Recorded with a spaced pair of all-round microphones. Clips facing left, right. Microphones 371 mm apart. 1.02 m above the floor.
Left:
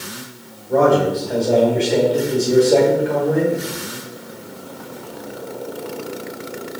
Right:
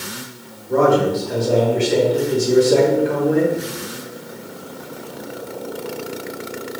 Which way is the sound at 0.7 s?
20° right (ahead or behind).